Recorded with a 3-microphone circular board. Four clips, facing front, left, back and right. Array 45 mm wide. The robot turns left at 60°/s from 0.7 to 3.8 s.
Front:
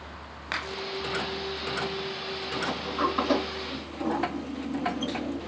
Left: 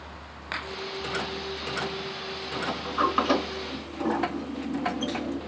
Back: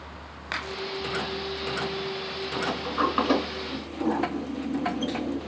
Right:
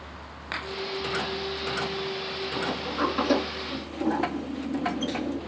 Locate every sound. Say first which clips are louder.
2.5 s a sliding door: left 2 dB, back 3 dB; 165° left, 3 m; by 5.4 s 90° left, 3 m